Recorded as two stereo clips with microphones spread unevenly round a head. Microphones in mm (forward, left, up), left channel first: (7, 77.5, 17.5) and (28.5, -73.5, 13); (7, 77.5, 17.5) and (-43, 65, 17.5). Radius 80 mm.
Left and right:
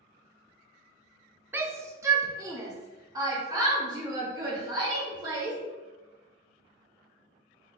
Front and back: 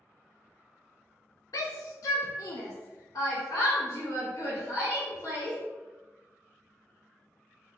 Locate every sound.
1.5 s a shout: 5° right, 0.6 m; by 5.6 s 20° right, 2.5 m